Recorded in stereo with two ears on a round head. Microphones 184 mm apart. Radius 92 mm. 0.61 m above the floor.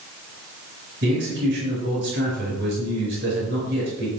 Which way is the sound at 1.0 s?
60° right (ahead or behind).